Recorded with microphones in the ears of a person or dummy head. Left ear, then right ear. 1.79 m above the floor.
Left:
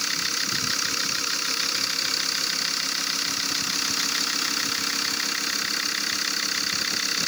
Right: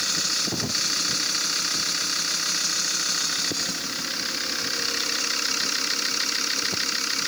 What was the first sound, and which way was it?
Only background noise.